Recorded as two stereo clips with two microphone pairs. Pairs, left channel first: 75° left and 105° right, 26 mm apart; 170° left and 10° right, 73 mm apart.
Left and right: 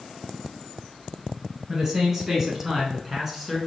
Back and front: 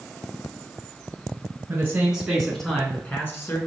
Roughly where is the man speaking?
Ahead right.